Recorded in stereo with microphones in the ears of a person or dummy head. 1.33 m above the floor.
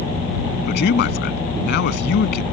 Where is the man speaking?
65° left (ahead or behind).